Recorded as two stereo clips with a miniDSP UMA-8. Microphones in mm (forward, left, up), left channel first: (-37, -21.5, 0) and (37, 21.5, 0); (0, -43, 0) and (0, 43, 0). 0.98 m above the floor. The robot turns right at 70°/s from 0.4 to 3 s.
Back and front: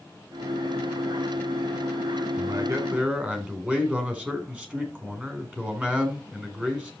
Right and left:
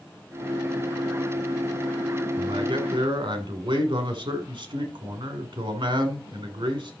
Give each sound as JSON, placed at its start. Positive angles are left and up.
{"t": 2.4, "sound": "a man speaking", "azimuth_deg": 60, "distance_m": 3.0}